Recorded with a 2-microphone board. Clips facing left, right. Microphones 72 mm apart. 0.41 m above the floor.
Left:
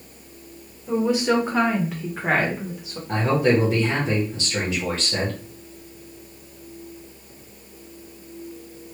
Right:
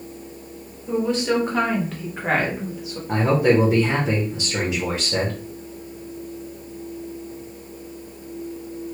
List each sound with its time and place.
0.9 s a woman speaking: 10° left (ahead or behind), 1.3 m; by 3.0 s centre (ahead or behind), 1.1 m
3.1 s a man speaking: 20° right (ahead or behind), 0.9 m